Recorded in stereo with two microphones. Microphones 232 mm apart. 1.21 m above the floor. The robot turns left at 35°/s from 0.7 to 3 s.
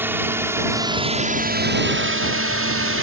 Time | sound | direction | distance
0.0 | a drone | 10° right (ahead or behind) | ?